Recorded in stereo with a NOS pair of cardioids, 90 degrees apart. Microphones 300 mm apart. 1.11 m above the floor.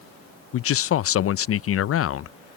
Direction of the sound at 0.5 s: 50° left.